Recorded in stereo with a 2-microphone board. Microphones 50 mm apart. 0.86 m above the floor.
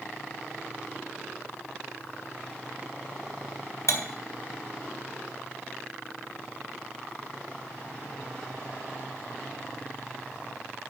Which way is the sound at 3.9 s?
85° left.